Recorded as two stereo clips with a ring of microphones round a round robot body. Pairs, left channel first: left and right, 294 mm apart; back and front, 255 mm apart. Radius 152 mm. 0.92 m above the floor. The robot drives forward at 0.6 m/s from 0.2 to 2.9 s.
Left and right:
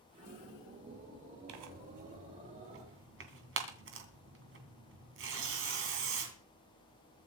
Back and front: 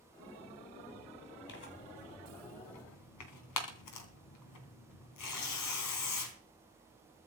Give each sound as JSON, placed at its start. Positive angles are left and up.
{"t": 1.5, "sound": "tearing paper", "azimuth_deg": -125, "distance_m": 2.0}